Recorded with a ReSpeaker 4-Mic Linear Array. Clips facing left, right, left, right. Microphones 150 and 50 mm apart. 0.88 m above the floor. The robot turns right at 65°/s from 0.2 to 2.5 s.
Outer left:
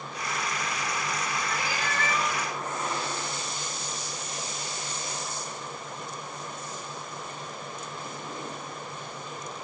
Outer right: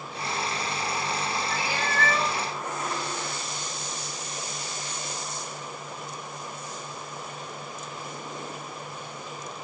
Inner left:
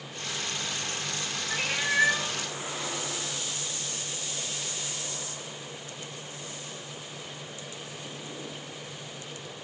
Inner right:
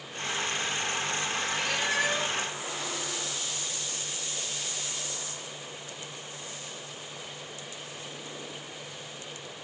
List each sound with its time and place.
1.5 s a cat meowing: 120° left, 1.7 m; by 2.3 s 175° left, 1.7 m